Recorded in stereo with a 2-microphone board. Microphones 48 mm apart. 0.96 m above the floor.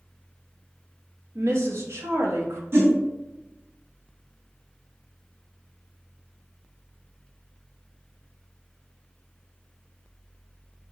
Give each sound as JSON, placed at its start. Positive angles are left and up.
{"t": 1.4, "sound": "a woman speaking", "side_deg": -65, "distance_m": 0.9}
{"t": 2.7, "sound": "a whoosh", "side_deg": -50, "distance_m": 1.3}